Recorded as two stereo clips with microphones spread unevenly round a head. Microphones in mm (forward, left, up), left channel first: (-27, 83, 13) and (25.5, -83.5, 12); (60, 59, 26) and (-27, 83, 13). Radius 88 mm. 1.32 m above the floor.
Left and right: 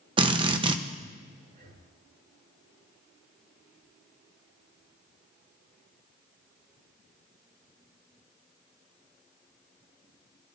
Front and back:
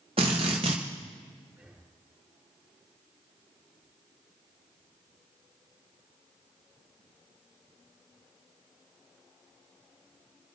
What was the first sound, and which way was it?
A drill, 135° right.